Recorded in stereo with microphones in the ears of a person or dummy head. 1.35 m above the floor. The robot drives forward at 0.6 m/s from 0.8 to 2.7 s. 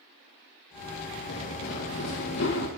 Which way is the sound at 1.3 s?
65° left (ahead or behind).